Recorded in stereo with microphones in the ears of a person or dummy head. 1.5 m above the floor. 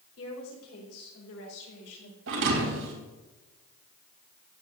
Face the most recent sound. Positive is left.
turn(degrees=-70)  # may be behind; listen again after turning